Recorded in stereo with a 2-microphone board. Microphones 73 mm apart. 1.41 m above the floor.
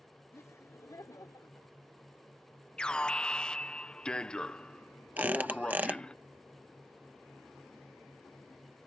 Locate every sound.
0.3 s laughter: 40° left (ahead or behind); by 1.8 s 50° left (ahead or behind)
2.8 s an alarm: 10° left (ahead or behind)
5.2 s a squeak: 20° right (ahead or behind)